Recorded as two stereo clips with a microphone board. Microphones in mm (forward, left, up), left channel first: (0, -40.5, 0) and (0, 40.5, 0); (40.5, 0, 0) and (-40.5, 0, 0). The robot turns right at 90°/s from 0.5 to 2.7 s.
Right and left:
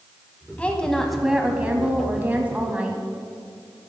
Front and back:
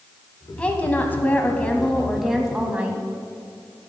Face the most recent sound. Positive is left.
turn(degrees=140)